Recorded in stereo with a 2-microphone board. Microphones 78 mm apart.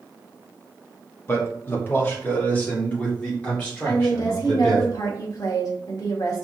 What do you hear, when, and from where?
1.3 s a man speaking: 30° left (ahead or behind), 1.0 m; by 4.8 s 10° left (ahead or behind), 2.5 m
3.9 s a woman speaking: 50° left (ahead or behind), 1.3 m